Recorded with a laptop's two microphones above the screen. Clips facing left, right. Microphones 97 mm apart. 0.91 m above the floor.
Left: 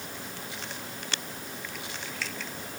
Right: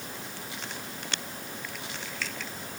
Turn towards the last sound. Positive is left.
No sound to turn to.